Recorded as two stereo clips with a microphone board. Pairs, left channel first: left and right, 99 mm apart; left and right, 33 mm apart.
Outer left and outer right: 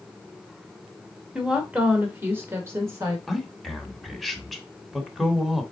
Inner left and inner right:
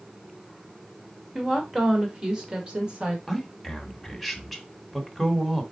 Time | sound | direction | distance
1.4 | a woman speaking | 10° right (ahead or behind) | 1.5 m
3.3 | a man speaking | centre (ahead or behind) | 1.2 m